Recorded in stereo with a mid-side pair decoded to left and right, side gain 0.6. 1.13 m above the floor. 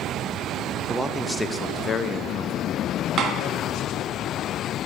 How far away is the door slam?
About 1.4 m.